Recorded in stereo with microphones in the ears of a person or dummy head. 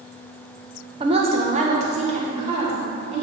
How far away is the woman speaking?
About 0.9 m.